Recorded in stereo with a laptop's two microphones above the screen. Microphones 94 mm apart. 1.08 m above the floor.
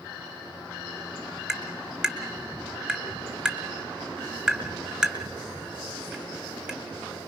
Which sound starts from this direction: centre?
Tapping, at 1.5 s.